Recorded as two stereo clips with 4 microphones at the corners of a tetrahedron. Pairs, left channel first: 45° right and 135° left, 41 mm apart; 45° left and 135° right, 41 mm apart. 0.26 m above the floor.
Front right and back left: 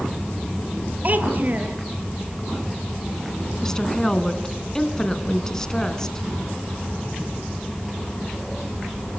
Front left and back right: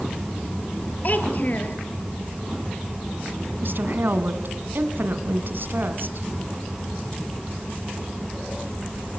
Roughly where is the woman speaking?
Behind right.